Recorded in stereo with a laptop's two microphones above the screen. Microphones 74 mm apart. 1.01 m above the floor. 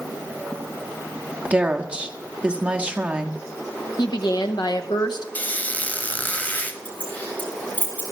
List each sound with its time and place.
1.4 s a woman speaking: 15° right (ahead or behind), 1.2 m
4.0 s a woman speaking: 70° left (ahead or behind), 0.9 m
5.3 s a squeak: 20° left (ahead or behind), 0.9 m
6.8 s keys jangling: 25° left (ahead or behind), 4.5 m